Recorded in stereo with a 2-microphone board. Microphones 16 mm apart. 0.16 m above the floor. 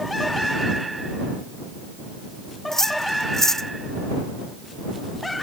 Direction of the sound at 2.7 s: 35° left (ahead or behind).